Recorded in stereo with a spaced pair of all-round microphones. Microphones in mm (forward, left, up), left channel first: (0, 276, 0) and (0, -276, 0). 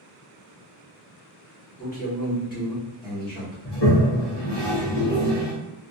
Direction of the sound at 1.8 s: 15° left (ahead or behind).